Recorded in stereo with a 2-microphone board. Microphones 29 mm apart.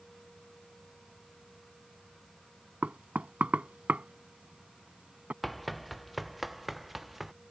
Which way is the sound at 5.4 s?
Centre (ahead or behind).